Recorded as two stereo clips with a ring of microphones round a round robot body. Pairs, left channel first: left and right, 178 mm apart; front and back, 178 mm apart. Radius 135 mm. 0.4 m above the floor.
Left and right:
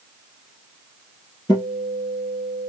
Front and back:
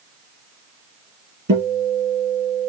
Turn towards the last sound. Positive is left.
turn(degrees=170)